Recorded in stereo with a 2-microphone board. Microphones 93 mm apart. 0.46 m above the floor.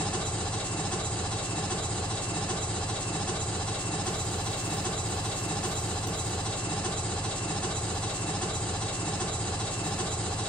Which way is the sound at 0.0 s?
10° left (ahead or behind).